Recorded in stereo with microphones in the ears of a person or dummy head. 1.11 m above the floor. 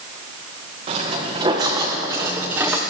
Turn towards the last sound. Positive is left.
turn(degrees=-10)  # may be behind; listen again after turning